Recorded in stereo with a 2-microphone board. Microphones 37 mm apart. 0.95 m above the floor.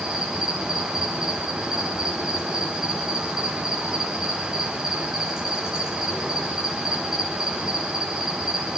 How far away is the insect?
About 8.5 m.